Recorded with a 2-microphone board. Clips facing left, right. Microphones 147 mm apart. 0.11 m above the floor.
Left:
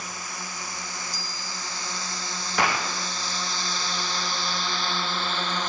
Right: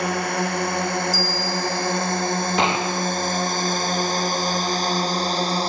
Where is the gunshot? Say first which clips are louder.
Right 1 dB; 20° right (ahead or behind).